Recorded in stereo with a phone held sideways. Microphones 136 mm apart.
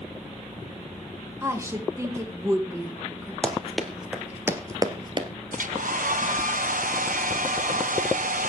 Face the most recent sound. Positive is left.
turn(degrees=-80)